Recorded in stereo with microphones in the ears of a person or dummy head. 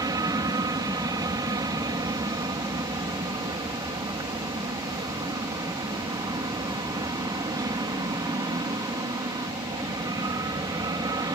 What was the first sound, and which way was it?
An aircraft, 15° right (ahead or behind).